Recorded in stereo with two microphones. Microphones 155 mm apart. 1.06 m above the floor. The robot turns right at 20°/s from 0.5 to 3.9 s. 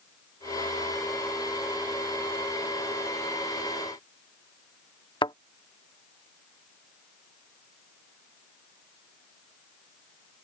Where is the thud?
35° left (ahead or behind).